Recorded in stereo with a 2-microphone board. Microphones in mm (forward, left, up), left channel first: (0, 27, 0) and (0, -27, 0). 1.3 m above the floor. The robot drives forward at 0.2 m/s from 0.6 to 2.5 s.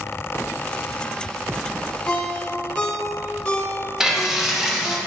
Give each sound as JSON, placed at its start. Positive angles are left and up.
{"t": 2.1, "sound": "a ringtone", "side_deg": 20, "distance_m": 0.9}
{"t": 4.0, "sound": "frying", "side_deg": -10, "distance_m": 1.0}